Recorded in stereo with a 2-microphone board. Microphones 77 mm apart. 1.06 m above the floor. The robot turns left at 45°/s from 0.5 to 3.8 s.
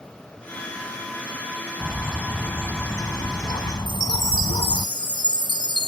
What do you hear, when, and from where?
1.8 s a bird: 175° right; by 4.9 s 95° left
3.9 s a chime: 80° left